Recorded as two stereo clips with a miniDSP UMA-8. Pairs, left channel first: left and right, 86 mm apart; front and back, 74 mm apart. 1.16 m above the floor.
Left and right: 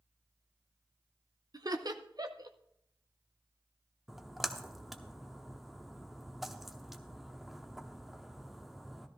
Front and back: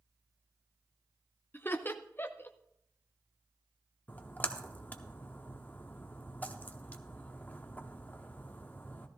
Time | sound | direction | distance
1.5 | laughter | 60° right | 0.7 m
4.1 | a splash | 5° right | 0.7 m